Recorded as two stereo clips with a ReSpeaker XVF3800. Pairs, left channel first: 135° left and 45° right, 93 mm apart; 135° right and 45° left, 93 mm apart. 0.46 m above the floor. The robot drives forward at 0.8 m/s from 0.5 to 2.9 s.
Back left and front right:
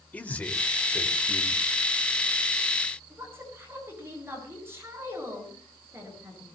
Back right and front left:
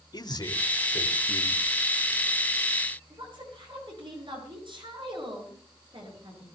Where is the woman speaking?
20° left, 8.5 m.